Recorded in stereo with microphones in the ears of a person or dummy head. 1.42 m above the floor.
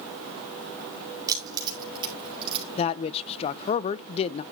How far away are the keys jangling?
About 4.5 m.